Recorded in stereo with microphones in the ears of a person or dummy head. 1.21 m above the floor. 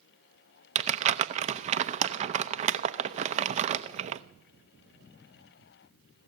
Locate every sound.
0.8 s crumpling: 35° right (ahead or behind), 0.7 m